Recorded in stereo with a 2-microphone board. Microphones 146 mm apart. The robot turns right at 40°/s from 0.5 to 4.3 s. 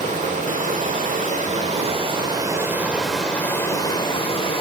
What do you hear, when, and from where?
0.0 s running water: 105° right, 1.2 m; by 4.6 s 45° left, 1.2 m